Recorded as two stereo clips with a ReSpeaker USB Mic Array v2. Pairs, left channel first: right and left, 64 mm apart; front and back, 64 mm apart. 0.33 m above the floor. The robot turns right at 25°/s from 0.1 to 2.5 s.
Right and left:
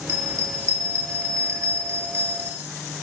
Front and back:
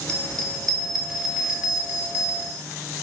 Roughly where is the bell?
Left.